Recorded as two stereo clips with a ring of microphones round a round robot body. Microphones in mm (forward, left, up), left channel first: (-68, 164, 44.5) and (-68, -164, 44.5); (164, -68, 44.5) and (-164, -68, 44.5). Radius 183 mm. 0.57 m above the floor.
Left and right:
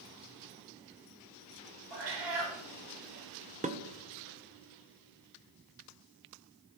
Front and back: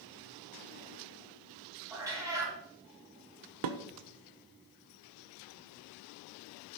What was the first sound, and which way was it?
A cat meowing, 100° right.